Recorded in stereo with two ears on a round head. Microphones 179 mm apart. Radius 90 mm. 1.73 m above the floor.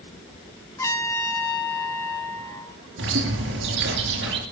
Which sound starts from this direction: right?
A bird, at 3.0 s.